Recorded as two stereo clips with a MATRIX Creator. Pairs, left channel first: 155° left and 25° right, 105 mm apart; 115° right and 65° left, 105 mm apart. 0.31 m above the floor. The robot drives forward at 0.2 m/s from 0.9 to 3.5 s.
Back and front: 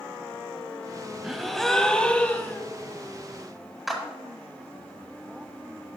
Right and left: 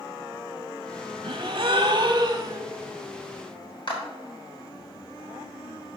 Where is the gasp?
65° left, 0.6 m; by 2.6 s 100° left, 0.6 m.